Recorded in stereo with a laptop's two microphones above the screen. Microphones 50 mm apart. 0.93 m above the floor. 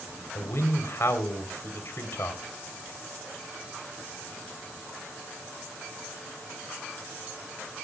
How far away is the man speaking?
About 4 m.